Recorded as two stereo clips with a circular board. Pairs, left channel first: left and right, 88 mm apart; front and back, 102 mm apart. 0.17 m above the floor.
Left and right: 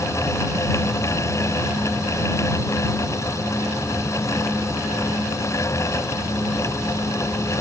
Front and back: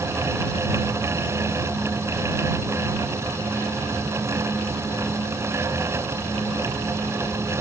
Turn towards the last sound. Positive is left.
No sound to turn to.